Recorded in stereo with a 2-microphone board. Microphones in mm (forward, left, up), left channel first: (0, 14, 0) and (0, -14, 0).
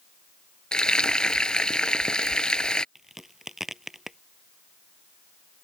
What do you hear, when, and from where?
0.7 s frying: 30° left (ahead or behind)
3.0 s a crack: 15° right (ahead or behind)